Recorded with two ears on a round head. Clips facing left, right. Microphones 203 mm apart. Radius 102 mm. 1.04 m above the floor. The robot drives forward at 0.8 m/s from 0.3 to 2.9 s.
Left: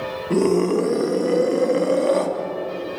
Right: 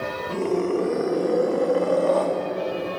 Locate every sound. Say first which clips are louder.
0.3 s a scream: left 6 dB; 55° left (ahead or behind), 1.7 m; by 2.3 s 30° left (ahead or behind), 2.5 m